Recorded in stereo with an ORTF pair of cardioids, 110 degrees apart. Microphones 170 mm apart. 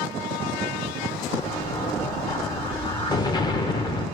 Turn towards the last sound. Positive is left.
turn(degrees=25)